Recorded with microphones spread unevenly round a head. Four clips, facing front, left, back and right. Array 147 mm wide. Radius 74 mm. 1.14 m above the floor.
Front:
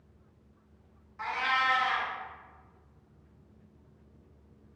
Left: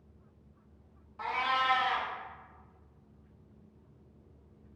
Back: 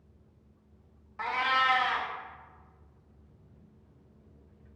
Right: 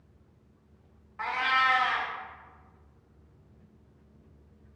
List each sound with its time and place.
1.2 s a cat meowing: 150° right, 0.6 m